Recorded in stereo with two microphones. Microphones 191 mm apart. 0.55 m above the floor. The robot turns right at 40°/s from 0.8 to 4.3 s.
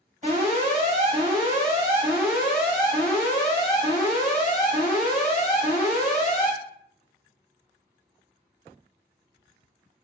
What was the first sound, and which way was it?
An alarm, 70° right.